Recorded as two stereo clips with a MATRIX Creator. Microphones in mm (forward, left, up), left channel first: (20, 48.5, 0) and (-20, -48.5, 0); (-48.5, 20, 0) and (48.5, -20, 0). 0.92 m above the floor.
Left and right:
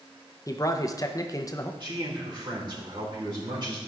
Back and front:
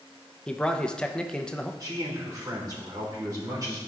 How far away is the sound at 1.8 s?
About 3 m.